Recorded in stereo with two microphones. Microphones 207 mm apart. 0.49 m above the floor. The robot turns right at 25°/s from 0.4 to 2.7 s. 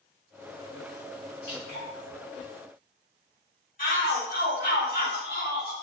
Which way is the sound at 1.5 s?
50° left (ahead or behind).